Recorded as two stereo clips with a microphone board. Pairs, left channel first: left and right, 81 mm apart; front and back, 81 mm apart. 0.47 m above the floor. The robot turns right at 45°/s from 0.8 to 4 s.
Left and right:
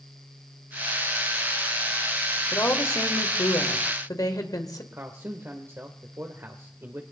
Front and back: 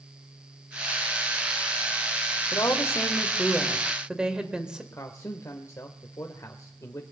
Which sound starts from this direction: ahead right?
A man speaking, at 4.9 s.